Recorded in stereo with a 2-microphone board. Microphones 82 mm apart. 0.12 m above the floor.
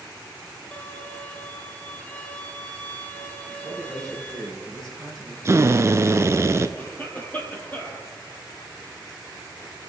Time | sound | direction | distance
0.7 | a violin | 15° left (ahead or behind) | 0.8 m
3.5 | a man speaking | 10° left (ahead or behind) | 4 m
5.5 | a drill | 35° right (ahead or behind) | 0.6 m
6.8 | a cough | 25° left (ahead or behind) | 2.5 m